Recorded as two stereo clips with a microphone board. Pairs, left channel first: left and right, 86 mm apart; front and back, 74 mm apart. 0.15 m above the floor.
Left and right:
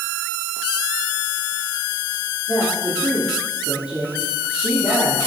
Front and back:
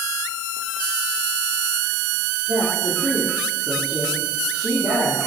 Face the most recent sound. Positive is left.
turn(degrees=-170)